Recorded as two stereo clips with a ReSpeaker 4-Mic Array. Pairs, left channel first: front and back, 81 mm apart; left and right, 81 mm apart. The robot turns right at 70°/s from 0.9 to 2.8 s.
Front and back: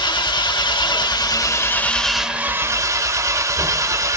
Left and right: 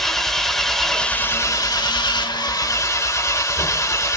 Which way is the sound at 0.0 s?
5° left.